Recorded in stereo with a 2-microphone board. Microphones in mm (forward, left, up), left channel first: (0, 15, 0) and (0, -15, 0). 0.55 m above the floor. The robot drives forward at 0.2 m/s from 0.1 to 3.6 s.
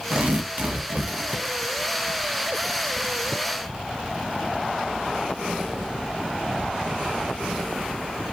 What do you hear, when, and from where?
0.1 s tearing paper: 55° right (ahead or behind), 0.6 m; by 1.6 s 45° right (ahead or behind), 0.7 m